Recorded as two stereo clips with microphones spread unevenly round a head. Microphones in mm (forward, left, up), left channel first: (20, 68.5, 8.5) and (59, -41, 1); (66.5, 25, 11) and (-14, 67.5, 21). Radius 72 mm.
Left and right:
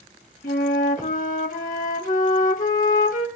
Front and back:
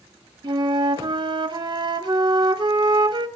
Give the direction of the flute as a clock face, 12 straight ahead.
8 o'clock.